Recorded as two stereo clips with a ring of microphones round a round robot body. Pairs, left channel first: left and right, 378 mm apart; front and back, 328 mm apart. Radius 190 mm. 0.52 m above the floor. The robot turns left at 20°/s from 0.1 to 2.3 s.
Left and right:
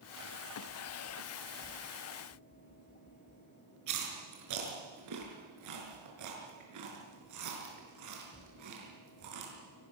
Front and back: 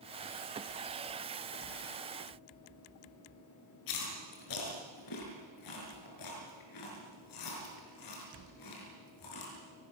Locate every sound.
3.9 s chewing: 40° right, 5.5 m